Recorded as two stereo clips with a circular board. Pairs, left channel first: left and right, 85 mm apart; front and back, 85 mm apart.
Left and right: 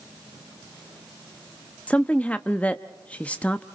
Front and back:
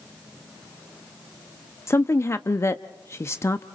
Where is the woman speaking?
25° left, 0.6 m.